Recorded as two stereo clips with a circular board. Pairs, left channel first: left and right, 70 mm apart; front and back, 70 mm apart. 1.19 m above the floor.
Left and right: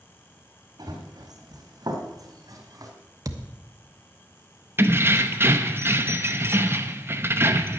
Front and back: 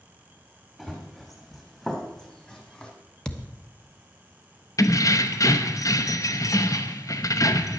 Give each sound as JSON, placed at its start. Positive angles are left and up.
{"t": 0.8, "sound": "running footsteps", "azimuth_deg": -95, "distance_m": 3.0}
{"t": 3.2, "sound": "a thud", "azimuth_deg": -80, "distance_m": 0.9}
{"t": 4.8, "sound": "keys jangling", "azimuth_deg": -35, "distance_m": 0.7}